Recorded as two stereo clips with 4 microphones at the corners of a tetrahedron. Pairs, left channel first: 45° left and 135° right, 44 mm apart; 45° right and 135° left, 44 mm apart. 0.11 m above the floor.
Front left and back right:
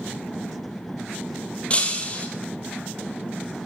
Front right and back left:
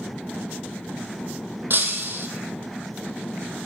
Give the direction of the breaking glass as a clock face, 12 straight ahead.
9 o'clock.